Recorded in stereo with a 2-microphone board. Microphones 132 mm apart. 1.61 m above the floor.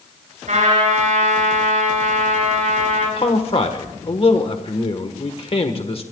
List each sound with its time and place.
0.5 s a trumpet: 70° right (ahead or behind), 8 m
3.2 s a man speaking: 45° left (ahead or behind), 1.4 m